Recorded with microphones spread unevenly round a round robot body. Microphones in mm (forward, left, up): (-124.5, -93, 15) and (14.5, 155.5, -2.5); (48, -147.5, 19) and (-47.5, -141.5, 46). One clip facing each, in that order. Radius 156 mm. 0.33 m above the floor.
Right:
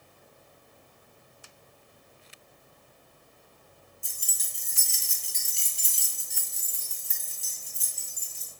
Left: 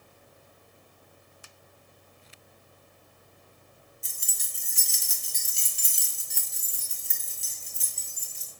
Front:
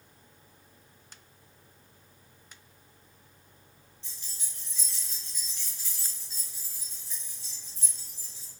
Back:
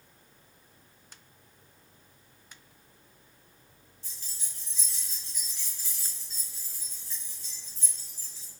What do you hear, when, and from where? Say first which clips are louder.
4.0 s keys jangling: even, even; 120° left, 1.2 m; by 8.5 s 55° left, 2.5 m